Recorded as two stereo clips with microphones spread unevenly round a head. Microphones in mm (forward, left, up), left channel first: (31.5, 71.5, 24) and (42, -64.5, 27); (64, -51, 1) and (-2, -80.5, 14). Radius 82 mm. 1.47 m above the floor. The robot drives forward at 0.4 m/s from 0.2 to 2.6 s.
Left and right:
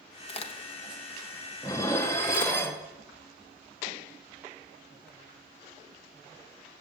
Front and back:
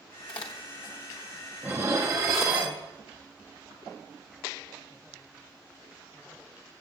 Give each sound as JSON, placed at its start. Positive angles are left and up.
{"t": 0.3, "sound": "a crack", "azimuth_deg": 50, "distance_m": 1.0}
{"t": 1.6, "sound": "dishes clattering", "azimuth_deg": 160, "distance_m": 0.5}